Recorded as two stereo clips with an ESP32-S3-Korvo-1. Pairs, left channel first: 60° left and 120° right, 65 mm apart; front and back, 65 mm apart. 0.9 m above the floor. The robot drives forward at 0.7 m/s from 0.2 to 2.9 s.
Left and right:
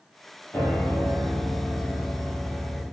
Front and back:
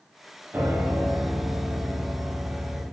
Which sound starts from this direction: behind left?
A piano, at 0.5 s.